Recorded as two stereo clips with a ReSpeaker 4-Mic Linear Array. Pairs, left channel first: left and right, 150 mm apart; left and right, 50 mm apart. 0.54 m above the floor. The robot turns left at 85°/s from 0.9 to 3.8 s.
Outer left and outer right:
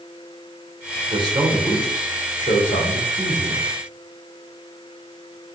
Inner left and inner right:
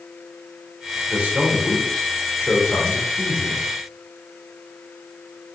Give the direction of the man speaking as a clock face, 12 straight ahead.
4 o'clock.